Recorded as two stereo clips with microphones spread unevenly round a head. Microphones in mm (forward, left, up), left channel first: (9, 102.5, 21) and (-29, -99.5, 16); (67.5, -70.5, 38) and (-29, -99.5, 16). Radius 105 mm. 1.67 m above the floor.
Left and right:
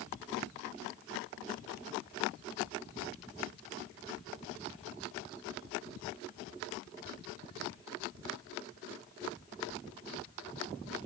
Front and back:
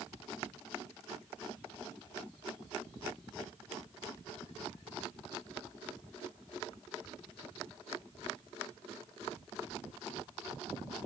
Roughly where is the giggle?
No giggle in this recording.